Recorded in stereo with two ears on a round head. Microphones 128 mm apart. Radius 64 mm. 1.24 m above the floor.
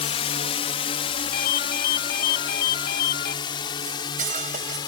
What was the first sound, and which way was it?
A drone, 45° left (ahead or behind).